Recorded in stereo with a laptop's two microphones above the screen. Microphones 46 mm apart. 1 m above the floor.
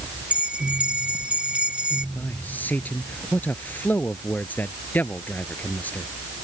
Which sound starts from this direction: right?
A bell, at 0.3 s.